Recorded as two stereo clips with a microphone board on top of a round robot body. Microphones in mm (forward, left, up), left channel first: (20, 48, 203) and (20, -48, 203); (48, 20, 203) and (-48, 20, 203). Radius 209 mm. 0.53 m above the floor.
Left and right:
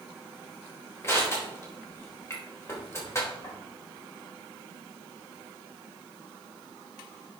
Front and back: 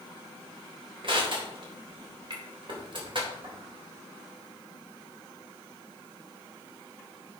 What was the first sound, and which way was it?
Crushing, 150° left.